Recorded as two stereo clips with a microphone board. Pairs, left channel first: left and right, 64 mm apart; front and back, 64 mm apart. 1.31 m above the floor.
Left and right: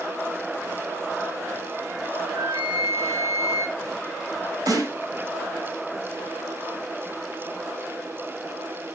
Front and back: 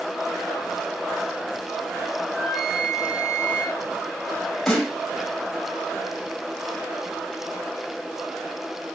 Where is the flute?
95° right, 4 m.